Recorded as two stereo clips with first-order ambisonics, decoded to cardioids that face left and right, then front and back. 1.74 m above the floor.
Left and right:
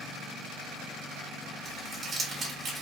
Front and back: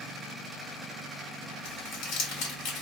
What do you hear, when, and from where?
1.6 s crumpling: 20° right, 2.5 m